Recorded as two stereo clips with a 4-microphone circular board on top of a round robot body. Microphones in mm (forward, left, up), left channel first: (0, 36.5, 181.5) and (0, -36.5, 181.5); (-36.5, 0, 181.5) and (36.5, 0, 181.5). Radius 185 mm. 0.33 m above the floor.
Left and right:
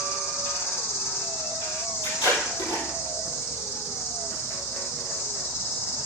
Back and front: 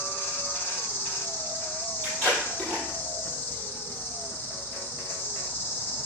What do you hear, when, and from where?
0.0 s an insect: 130° left, 1.8 m
2.0 s tape being pulled: 100° left, 5 m